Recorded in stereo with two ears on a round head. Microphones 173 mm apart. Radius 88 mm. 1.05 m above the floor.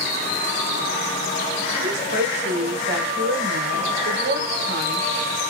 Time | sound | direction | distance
1.7 | a woman speaking | 65° right (ahead or behind) | 4 m